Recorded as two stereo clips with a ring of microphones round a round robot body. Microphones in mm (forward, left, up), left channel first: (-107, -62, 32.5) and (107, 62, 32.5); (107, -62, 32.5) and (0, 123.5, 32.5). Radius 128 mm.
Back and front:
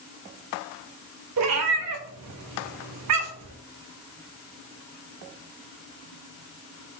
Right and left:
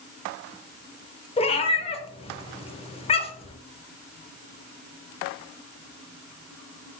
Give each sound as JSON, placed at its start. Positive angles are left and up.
{"t": 1.4, "sound": "a cat meowing", "azimuth_deg": 5, "distance_m": 0.6}